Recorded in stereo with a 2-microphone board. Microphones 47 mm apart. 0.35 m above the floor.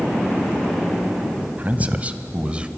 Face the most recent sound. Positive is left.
turn(degrees=-25)  # may be behind; listen again after turning